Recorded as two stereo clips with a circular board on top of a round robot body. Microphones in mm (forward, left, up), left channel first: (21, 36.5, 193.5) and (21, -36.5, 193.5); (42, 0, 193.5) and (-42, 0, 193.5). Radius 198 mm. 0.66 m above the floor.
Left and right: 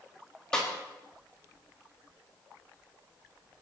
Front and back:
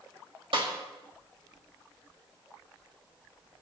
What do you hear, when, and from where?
0.5 s a snare drum: 170° left, 4.5 m